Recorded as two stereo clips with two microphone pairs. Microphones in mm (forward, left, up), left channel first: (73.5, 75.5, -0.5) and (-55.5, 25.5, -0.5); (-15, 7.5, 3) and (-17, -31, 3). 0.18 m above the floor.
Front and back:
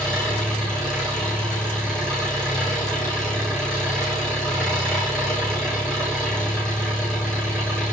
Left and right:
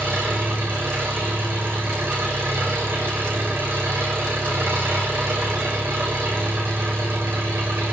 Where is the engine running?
65° right, 7.5 m.